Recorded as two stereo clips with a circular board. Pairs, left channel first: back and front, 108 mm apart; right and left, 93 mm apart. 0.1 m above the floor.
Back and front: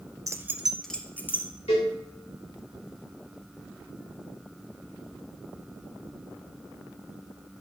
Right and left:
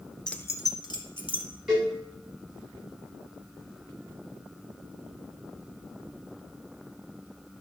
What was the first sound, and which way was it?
Keys jangling, 15° right.